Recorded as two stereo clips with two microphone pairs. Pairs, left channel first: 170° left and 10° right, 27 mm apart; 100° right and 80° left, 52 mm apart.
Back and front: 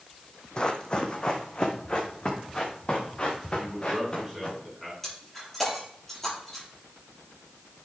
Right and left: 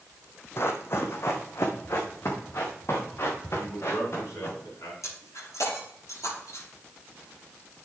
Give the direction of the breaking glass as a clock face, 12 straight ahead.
4 o'clock.